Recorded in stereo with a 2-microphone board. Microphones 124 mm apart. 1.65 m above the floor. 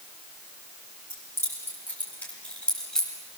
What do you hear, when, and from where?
1.1 s keys jangling: 25° left (ahead or behind), 7.5 m; by 3.1 s 5° left (ahead or behind), 7.5 m